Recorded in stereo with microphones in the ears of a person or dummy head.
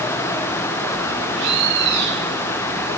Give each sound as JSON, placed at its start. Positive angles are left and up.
{"t": 1.4, "sound": "a bird", "side_deg": -70, "distance_m": 3.5}